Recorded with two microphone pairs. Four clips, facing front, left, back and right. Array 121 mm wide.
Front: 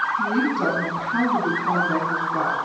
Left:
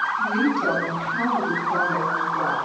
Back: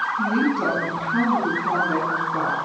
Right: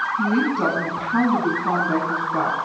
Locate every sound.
0.2 s a woman speaking: 75° right, 5.5 m